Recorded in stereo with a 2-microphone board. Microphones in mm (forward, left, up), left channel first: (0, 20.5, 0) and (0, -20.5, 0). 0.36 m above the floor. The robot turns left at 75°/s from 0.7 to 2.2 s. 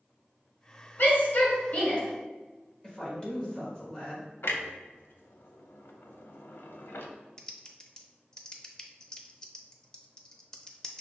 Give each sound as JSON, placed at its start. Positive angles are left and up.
{"t": 1.0, "sound": "a shout", "side_deg": 50, "distance_m": 1.7}
{"t": 2.8, "sound": "a woman speaking", "side_deg": 25, "distance_m": 1.4}
{"t": 4.4, "sound": "a clunk", "side_deg": 70, "distance_m": 0.5}
{"t": 7.4, "sound": "typing on a keyboard", "side_deg": 20, "distance_m": 0.5}